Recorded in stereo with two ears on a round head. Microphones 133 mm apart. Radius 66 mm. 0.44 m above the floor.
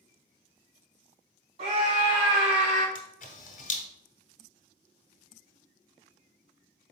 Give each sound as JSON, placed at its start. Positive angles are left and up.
{"t": 1.6, "sound": "a scream", "side_deg": -40, "distance_m": 1.5}
{"t": 3.0, "sound": "a camera shutter", "side_deg": 55, "distance_m": 1.0}